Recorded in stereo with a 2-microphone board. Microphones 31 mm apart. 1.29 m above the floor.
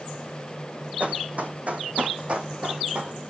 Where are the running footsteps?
60° right (ahead or behind), 2.5 m; by 3.2 s 45° right (ahead or behind), 2.5 m.